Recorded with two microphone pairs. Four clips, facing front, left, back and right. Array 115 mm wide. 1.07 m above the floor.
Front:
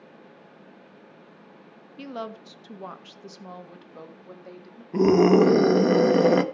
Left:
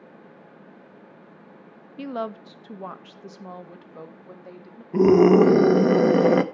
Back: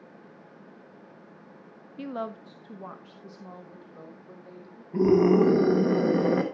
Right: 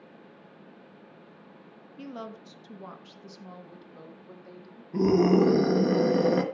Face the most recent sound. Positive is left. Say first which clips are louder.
# left 7 dB, front 3 dB
turn(degrees=55)